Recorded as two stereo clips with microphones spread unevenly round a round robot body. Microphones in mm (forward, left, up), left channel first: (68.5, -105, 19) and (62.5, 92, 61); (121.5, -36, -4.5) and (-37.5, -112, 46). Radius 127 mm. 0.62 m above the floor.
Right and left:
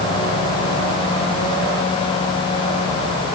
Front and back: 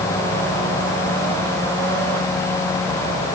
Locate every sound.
Only background noise.